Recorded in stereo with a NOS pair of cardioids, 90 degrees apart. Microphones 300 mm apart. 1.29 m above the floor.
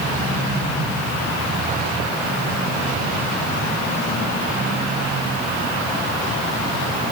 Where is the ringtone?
No ringtone in this recording.